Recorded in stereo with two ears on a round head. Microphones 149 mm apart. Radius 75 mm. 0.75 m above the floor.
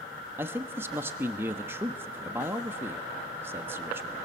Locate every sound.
0.4 s a man speaking: 15° right (ahead or behind), 1.1 m